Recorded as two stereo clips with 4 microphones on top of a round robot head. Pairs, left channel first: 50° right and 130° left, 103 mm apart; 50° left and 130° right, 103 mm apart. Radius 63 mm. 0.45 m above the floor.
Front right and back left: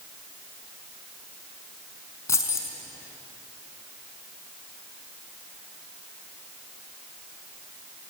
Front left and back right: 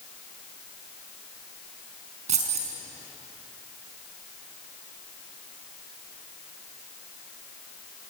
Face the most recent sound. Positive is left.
turn(degrees=-115)